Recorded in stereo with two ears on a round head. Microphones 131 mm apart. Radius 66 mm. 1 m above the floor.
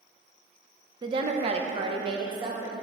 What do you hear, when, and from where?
1.0 s a woman speaking: 30° right (ahead or behind), 0.5 m